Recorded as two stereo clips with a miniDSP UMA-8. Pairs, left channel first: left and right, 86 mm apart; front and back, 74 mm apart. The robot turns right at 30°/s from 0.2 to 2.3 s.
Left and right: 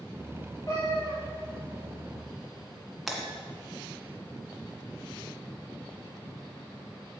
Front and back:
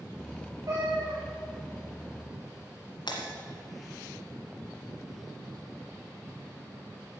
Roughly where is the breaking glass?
Ahead.